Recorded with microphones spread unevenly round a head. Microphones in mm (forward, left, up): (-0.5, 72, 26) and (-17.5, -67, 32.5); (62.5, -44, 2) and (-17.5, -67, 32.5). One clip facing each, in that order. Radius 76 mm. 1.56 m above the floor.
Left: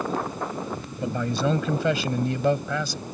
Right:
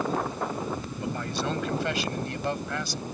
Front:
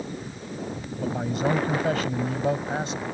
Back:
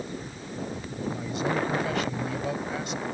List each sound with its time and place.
1.0 s a man speaking: 85° left; by 3.0 s 90° left